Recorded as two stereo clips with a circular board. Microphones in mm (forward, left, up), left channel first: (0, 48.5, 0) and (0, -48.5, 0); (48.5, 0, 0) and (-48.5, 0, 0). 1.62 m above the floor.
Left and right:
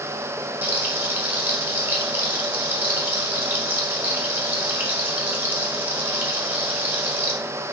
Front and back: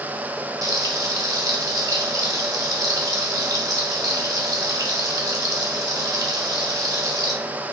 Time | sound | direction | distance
0.6 | frying | 150° right | 1.4 m